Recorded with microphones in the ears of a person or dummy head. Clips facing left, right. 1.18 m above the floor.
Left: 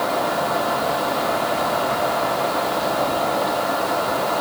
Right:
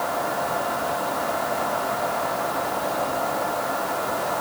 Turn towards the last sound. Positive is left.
No sound to turn to.